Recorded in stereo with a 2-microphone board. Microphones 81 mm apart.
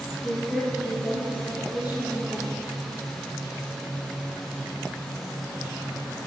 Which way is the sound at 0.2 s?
5° right (ahead or behind).